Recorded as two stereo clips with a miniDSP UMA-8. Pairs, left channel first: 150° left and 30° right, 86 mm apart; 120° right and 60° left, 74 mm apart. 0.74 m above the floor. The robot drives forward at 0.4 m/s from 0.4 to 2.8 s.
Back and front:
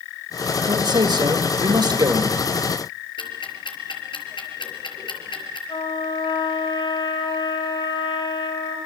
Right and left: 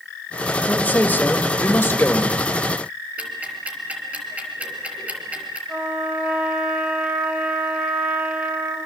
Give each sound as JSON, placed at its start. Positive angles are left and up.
{"t": 0.7, "sound": "a man speaking", "azimuth_deg": -50, "distance_m": 3.0}
{"t": 3.2, "sound": "ticking", "azimuth_deg": 135, "distance_m": 4.5}
{"t": 5.7, "sound": "a trumpet", "azimuth_deg": 135, "distance_m": 3.5}